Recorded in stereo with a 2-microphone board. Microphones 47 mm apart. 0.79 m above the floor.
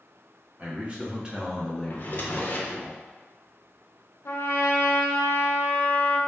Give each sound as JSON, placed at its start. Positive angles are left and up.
{"t": 0.6, "sound": "a man speaking", "side_deg": -30, "distance_m": 1.1}
{"t": 1.9, "sound": "a drawer", "side_deg": 40, "distance_m": 0.6}
{"t": 4.2, "sound": "a trumpet", "side_deg": 65, "distance_m": 0.6}